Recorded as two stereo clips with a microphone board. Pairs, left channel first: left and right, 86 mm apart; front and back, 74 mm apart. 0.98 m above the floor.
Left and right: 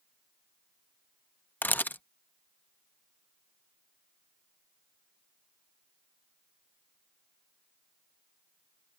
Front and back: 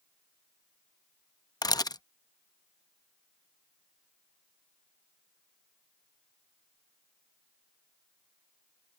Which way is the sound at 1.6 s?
20° left.